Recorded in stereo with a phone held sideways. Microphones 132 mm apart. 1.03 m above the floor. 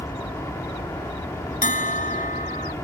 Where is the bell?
85° left.